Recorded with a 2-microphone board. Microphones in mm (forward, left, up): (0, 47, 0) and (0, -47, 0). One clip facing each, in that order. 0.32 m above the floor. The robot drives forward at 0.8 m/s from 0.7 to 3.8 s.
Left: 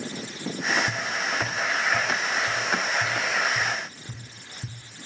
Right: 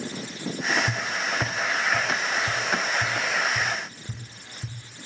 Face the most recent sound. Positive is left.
turn(degrees=-10)  # may be behind; listen again after turning